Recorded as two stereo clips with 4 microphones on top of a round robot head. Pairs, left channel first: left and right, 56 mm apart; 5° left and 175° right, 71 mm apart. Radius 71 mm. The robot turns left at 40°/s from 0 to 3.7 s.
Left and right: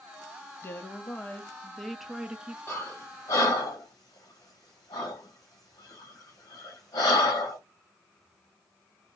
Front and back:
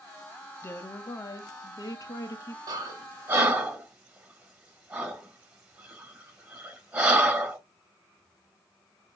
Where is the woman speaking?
50° left, 0.9 m; by 2.6 s 25° right, 0.9 m.